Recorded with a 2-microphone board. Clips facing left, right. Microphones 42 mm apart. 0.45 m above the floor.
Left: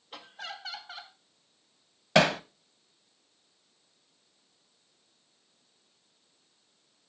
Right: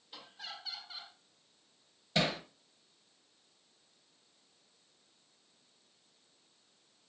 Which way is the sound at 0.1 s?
60° left (ahead or behind).